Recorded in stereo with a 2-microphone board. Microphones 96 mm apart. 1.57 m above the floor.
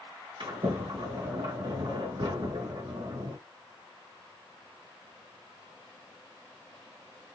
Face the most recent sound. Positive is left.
turn(degrees=-65)  # may be behind; listen again after turning